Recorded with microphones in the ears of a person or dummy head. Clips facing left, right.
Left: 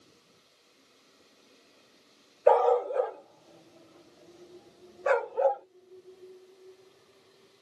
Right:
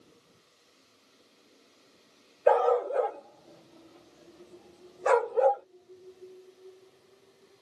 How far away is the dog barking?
About 0.9 m.